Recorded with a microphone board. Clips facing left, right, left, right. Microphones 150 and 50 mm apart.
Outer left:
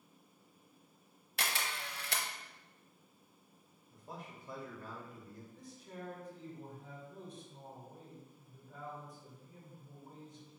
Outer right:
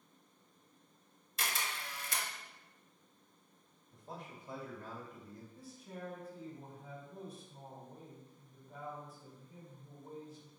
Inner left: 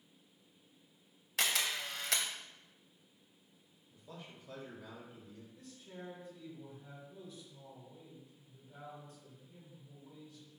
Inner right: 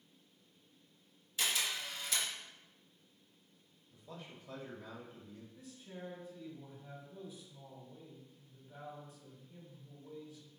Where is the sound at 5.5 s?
10° right (ahead or behind), 1.6 m.